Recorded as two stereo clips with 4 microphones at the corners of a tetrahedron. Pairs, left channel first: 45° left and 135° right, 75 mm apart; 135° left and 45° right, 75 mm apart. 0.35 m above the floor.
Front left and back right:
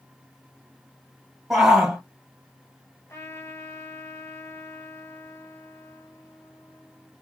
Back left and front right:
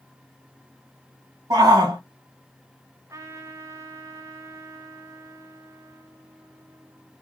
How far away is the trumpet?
About 2.5 m.